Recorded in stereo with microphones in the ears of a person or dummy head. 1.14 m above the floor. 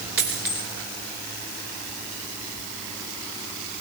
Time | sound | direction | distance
0.2 | a dropped coin | 10° right (ahead or behind) | 0.9 m